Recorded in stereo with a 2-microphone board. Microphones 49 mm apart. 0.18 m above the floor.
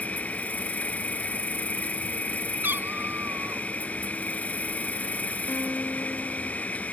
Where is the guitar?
40° left (ahead or behind).